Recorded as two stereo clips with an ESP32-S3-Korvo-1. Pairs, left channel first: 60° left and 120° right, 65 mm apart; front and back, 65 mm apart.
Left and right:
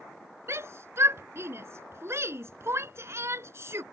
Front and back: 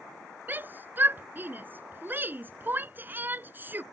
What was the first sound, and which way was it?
A shout, 135° right.